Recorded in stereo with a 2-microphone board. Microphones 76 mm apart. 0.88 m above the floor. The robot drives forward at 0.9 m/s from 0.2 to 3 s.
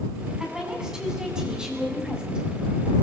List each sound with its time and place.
0.4 s a woman speaking: 10° right (ahead or behind), 8 m